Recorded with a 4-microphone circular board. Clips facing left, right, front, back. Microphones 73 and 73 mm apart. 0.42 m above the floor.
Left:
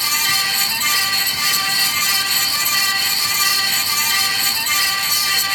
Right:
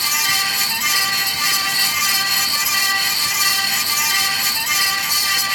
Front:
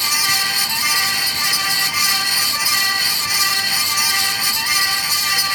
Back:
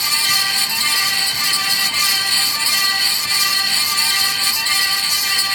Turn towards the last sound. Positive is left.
No sound to turn to.